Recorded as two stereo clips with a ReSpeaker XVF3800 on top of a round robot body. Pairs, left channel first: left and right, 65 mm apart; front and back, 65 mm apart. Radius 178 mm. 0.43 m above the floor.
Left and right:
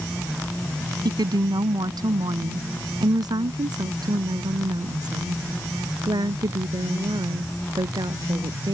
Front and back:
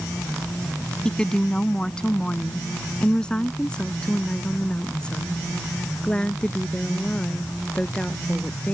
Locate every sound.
1.1 s a woman speaking: 80° right; by 8.7 s 75° right